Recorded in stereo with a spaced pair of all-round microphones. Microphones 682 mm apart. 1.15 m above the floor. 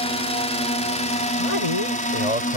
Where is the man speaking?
60° left (ahead or behind).